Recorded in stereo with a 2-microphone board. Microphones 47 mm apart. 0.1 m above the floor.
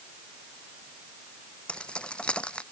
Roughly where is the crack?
I don't hear a crack.